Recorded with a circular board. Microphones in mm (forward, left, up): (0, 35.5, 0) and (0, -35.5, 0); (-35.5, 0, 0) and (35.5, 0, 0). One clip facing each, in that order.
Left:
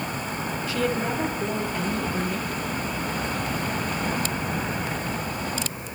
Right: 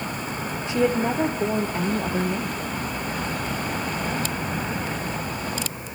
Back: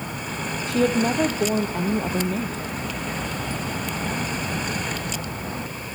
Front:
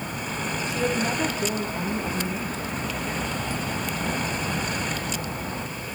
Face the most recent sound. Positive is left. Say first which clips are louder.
# right 5 dB, back 6 dB
turn(degrees=-155)